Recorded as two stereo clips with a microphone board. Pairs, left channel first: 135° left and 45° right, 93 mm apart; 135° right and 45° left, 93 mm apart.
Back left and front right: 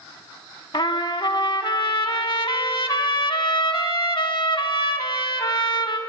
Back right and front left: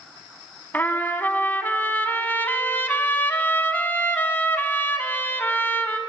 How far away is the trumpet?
About 0.6 m.